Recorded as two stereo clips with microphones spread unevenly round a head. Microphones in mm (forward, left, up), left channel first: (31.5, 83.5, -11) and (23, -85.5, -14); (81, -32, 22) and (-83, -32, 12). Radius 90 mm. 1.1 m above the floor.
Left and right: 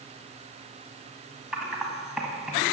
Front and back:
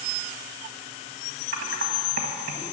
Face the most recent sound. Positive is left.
turn(degrees=180)